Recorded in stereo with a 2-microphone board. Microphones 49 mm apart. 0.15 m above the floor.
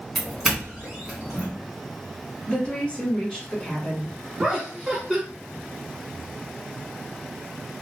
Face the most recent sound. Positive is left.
turn(degrees=-20)  # may be behind; listen again after turning